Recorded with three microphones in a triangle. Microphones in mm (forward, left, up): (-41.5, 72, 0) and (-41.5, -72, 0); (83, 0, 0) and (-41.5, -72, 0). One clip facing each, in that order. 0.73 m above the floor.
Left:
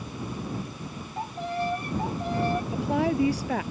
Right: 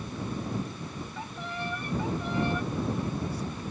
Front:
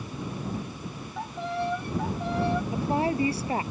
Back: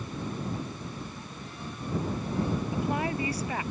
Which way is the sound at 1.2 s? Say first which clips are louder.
Left 10 dB, front 11 dB; 40° left.